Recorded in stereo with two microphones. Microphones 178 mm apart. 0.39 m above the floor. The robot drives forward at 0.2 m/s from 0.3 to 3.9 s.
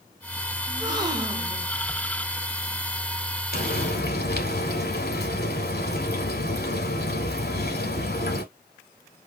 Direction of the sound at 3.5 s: 65° left (ahead or behind).